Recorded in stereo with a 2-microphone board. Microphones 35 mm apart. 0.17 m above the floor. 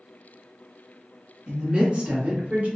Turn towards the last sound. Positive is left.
turn(degrees=-45)  # may be behind; listen again after turning